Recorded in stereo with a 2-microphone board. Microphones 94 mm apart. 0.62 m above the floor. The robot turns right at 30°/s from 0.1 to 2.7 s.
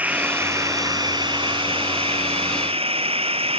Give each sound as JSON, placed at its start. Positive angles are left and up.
{"t": 0.0, "sound": "running water", "azimuth_deg": -165}